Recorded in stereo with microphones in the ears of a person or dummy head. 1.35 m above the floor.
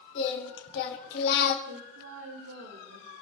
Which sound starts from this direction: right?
A woman speaking, at 1.7 s.